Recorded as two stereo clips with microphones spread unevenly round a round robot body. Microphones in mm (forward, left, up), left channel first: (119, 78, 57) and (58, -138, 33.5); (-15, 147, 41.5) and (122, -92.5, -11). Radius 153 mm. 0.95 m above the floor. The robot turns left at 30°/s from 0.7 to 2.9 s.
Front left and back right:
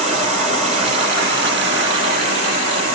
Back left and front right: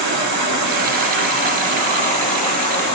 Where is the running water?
45° right, 2.5 m; by 2.9 s 110° right, 2.5 m.